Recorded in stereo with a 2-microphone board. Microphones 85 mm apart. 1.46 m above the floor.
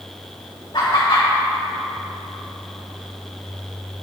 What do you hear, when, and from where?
0.7 s laughter: 55° left (ahead or behind), 1.0 m